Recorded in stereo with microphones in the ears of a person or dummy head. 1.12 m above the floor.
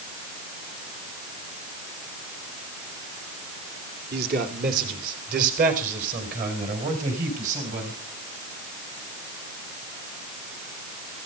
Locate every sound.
4.1 s a man speaking: 50° right (ahead or behind), 2.5 m; by 8.0 s 45° right (ahead or behind), 7 m